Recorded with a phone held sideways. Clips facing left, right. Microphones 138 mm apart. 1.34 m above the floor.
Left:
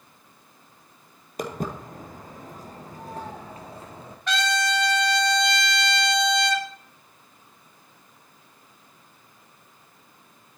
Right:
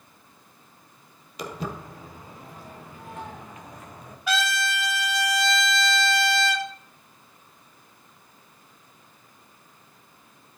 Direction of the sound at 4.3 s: 5° right (ahead or behind).